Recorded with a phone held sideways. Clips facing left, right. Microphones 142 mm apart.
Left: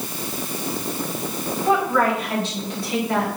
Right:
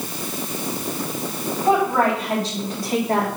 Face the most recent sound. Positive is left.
turn(degrees=-50)  # may be behind; listen again after turning